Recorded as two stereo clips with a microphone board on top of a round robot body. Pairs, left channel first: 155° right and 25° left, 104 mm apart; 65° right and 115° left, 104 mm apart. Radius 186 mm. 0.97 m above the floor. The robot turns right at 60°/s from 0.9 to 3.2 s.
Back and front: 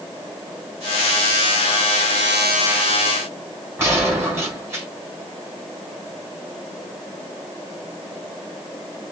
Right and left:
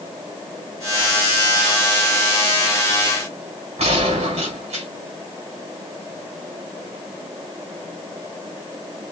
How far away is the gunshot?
About 2.5 m.